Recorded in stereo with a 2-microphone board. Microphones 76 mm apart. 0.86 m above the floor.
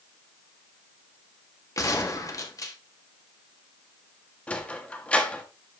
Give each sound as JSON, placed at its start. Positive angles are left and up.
{"t": 1.8, "sound": "a gunshot", "side_deg": 50, "distance_m": 1.4}
{"t": 4.5, "sound": "a sliding door", "side_deg": 20, "distance_m": 1.1}